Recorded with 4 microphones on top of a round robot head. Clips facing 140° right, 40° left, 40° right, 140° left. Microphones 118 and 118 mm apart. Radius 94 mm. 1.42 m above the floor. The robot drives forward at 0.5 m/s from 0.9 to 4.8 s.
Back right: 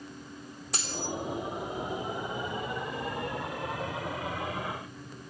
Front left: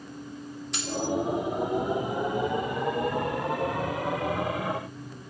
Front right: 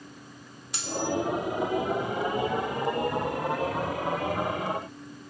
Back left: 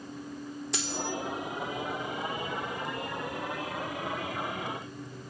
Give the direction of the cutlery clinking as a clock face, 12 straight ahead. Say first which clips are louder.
Front left 6 dB, front right 6 dB; 7 o'clock.